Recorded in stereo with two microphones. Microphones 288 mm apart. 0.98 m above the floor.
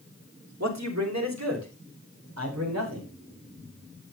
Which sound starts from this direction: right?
A man speaking, at 0.6 s.